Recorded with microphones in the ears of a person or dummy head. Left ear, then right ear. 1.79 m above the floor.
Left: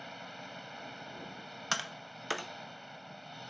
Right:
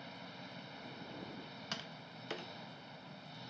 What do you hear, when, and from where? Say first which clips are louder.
0.0 s an engine running: left 5 dB; 35° left (ahead or behind)
1.7 s tapping: left 11 dB; 50° left (ahead or behind)